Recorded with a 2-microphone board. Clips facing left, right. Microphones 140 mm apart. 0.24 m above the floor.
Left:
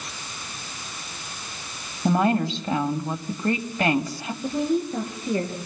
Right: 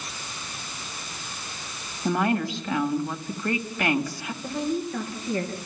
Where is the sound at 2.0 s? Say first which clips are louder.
Left 3 dB; 30° left (ahead or behind), 1.7 m.